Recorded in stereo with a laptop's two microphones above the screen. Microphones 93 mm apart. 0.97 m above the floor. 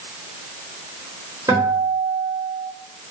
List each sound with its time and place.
1.5 s a guitar: 45° right (ahead or behind), 0.9 m